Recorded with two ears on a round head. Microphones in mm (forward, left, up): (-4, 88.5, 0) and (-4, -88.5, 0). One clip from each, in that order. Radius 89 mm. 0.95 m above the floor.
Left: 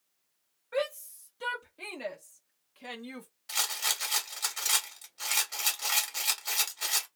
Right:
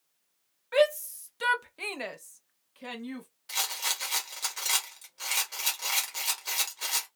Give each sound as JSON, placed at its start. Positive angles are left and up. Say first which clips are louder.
{"t": 0.7, "sound": "a shout", "louder": "right 8 dB", "side_deg": -65, "distance_m": 1.1}
{"t": 3.5, "sound": "a rattle", "louder": "even", "side_deg": 10, "distance_m": 1.0}